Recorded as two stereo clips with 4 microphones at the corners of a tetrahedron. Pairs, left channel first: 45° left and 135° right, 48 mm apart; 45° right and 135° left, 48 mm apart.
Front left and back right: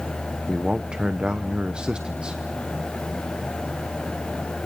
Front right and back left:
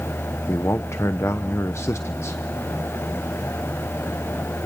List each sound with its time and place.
0.5 s a man speaking: 65° right, 0.9 m